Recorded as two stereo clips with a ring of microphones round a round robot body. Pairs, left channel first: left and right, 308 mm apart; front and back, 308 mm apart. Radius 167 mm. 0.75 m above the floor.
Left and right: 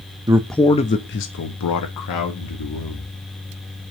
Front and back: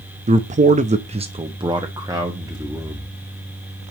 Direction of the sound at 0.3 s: 150° right.